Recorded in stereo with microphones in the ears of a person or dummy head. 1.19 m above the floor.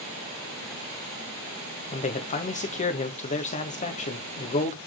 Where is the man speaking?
30° left (ahead or behind), 1.3 m.